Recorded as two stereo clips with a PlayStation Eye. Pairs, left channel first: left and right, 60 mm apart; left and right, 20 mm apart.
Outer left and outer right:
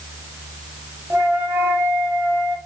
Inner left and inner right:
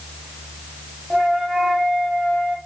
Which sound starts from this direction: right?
A flute, at 1.1 s.